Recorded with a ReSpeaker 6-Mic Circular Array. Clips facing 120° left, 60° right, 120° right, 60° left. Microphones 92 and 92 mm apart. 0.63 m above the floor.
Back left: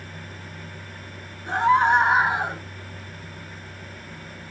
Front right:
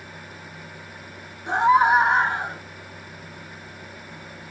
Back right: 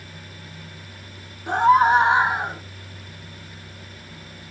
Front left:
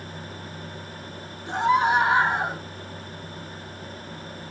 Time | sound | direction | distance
1.5 | a scream | 125° right | 1.7 m